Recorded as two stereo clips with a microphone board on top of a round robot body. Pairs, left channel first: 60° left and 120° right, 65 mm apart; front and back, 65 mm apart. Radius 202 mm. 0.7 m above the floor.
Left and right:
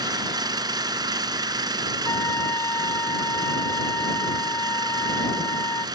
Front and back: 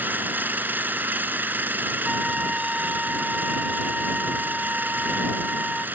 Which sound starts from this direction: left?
A trumpet, at 2.0 s.